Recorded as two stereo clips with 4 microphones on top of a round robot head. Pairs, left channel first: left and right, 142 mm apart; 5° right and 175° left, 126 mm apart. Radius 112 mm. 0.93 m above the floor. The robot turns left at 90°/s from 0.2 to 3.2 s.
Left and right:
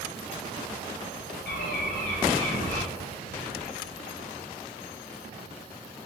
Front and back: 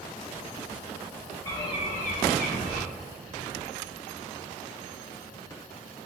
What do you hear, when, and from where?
1.4 s a bird: 70° left, 0.7 m; by 2.8 s 50° right, 0.7 m